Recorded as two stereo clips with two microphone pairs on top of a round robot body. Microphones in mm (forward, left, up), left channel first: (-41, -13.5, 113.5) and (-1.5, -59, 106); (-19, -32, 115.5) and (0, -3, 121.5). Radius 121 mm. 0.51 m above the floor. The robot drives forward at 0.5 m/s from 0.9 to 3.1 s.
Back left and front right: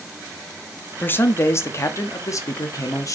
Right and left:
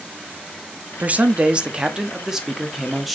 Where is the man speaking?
85° left, 1.0 m; by 3.2 s 150° left, 1.5 m.